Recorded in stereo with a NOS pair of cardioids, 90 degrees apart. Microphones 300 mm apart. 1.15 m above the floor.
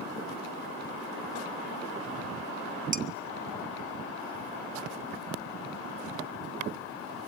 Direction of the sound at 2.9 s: 25° right.